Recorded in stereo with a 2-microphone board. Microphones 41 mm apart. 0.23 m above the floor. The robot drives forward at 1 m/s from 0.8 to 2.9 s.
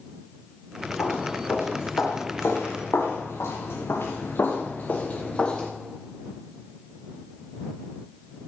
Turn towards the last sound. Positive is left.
turn(degrees=20)  # may be behind; listen again after turning